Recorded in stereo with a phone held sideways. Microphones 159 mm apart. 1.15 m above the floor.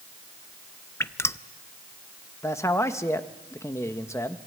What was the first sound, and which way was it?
Dripping, 15° left (ahead or behind).